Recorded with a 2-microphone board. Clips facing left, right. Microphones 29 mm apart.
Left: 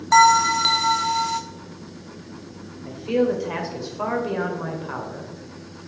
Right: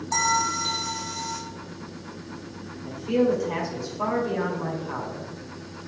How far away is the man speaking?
About 1.8 m.